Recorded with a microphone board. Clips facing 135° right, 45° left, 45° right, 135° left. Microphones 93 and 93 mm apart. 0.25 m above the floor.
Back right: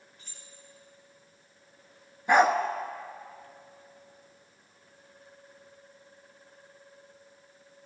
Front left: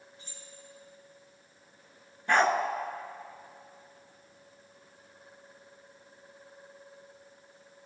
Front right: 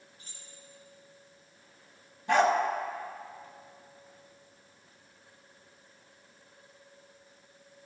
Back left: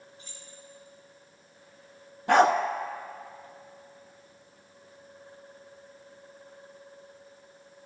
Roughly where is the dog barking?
Behind left.